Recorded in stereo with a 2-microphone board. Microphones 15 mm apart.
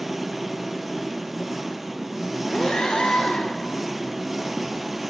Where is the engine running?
15° right (ahead or behind), 0.7 m.